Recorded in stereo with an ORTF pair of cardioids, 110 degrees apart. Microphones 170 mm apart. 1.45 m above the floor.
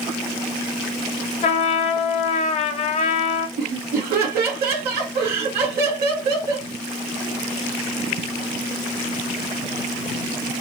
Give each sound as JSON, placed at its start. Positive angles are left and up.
{"t": 1.4, "sound": "a trumpet", "azimuth_deg": 40, "distance_m": 1.0}
{"t": 3.6, "sound": "laughter", "azimuth_deg": -70, "distance_m": 1.8}